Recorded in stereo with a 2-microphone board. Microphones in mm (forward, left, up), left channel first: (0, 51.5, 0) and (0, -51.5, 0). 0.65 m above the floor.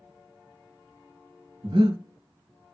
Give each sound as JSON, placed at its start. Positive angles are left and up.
{"t": 1.6, "sound": "breathing", "side_deg": -55, "distance_m": 2.0}